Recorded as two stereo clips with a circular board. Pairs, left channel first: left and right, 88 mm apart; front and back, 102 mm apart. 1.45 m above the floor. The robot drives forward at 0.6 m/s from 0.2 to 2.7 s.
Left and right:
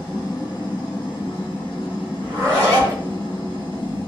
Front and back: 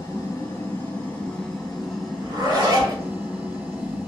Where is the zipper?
135° right, 1.7 m; by 3.0 s 145° right, 1.9 m.